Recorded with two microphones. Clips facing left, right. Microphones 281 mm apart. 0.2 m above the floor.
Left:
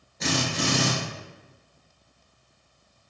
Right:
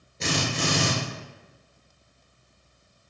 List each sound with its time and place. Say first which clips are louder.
0.2 s a drill: left 1 dB; 30° right (ahead or behind), 1.9 m